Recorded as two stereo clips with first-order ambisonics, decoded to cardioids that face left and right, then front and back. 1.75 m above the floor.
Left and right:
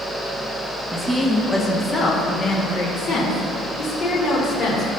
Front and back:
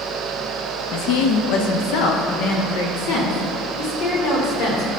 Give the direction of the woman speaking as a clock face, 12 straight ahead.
12 o'clock.